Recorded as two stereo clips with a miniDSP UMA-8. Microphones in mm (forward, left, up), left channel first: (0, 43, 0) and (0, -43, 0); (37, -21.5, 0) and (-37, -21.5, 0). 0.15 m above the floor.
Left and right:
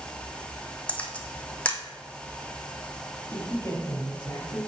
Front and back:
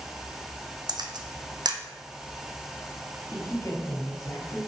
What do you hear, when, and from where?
0.9 s a camera shutter: 165° left, 1.2 m
3.3 s a man speaking: 40° left, 3.5 m